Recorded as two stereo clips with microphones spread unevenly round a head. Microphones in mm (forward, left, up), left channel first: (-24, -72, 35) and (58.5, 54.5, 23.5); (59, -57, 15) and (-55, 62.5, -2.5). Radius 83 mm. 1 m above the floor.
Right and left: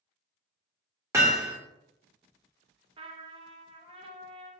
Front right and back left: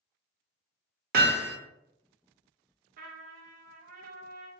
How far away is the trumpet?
About 0.6 m.